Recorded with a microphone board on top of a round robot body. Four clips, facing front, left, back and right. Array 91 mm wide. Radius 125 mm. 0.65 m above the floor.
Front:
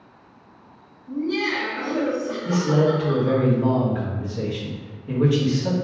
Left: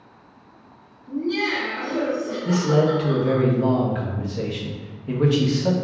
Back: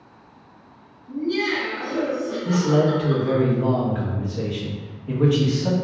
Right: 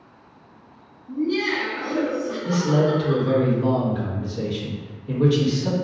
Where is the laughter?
55° left, 1.1 m; by 3.5 s 20° right, 1.3 m.